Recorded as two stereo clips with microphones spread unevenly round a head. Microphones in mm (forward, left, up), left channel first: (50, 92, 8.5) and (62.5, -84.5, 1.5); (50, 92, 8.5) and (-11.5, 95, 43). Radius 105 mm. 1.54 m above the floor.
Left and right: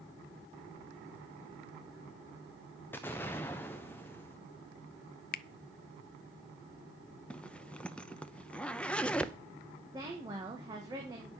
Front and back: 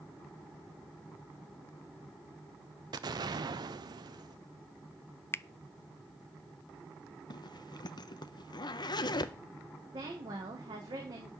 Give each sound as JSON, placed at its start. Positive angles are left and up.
{"t": 2.9, "sound": "an explosion", "azimuth_deg": 175, "distance_m": 0.6}
{"t": 5.3, "sound": "a finger snap", "azimuth_deg": 55, "distance_m": 0.5}
{"t": 7.3, "sound": "a zipper", "azimuth_deg": 15, "distance_m": 0.8}
{"t": 9.9, "sound": "a woman speaking", "azimuth_deg": -160, "distance_m": 1.3}